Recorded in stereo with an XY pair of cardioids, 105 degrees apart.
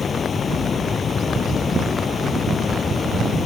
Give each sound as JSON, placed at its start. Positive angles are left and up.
{"t": 0.0, "sound": "running water", "azimuth_deg": 40}